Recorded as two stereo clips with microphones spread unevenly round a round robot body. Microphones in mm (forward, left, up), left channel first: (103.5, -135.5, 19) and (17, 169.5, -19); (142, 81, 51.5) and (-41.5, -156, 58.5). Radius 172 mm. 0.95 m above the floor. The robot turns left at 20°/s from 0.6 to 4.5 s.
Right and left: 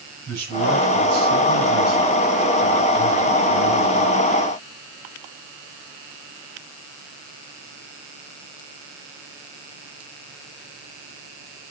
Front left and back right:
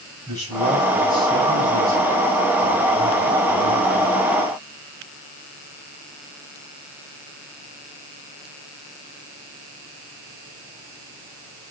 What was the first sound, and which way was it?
A man speaking, 155° left.